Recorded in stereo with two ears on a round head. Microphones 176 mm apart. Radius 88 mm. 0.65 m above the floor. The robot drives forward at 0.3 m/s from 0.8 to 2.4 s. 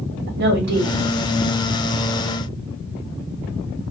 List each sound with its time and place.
0.3 s a woman speaking: 55° right (ahead or behind), 1.7 m